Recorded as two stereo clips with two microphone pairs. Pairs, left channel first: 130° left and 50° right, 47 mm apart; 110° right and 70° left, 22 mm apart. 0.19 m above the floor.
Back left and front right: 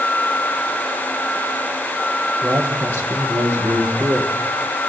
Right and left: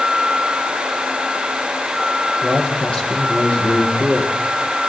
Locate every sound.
2.4 s a man speaking: 60° right, 7 m